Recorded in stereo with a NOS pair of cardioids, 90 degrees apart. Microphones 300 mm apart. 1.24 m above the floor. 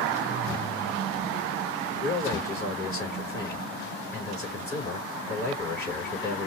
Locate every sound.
2.0 s a man speaking: 30° left, 3.5 m